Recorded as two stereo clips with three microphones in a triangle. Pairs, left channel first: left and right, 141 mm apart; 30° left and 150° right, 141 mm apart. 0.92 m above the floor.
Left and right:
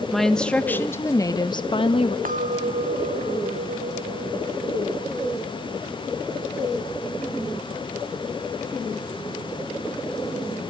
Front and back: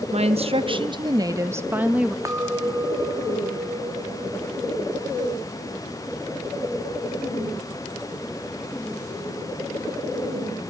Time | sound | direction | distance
0.1 | a woman speaking | straight behind | 1.4 m
2.2 | a clink | 80° right | 1.4 m